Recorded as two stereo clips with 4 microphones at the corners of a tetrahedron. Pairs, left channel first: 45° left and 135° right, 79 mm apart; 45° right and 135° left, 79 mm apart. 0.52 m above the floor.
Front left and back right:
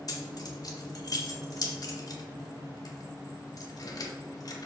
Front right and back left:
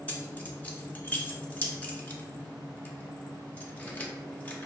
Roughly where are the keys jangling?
Ahead.